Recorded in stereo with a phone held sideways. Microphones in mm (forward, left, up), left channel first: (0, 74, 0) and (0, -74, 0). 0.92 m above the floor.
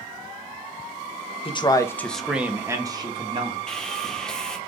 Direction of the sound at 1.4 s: 35° left (ahead or behind).